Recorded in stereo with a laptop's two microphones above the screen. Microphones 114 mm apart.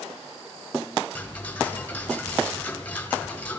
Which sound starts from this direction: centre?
Ticking, at 1.1 s.